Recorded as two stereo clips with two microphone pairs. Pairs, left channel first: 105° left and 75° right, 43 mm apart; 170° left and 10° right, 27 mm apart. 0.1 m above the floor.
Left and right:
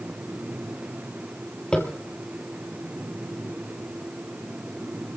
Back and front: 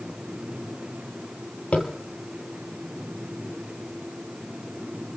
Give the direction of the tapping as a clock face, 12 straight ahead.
6 o'clock.